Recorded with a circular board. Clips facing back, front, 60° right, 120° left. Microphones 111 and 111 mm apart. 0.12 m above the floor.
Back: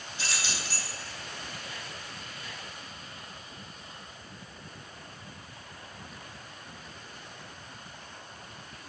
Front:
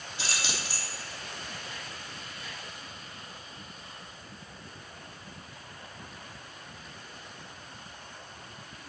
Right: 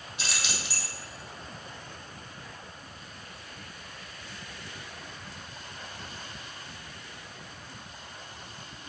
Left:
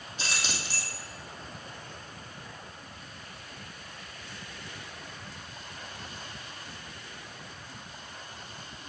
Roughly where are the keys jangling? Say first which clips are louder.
Front 1 dB, left 1 dB; left.